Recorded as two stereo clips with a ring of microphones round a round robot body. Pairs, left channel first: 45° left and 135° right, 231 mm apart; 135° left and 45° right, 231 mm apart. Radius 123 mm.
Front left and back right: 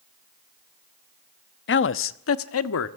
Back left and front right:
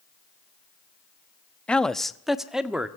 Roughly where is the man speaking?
Ahead left.